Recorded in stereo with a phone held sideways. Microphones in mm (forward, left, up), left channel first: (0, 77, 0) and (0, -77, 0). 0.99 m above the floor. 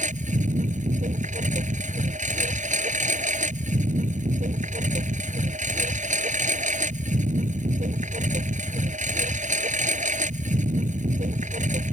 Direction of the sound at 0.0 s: 55° right (ahead or behind).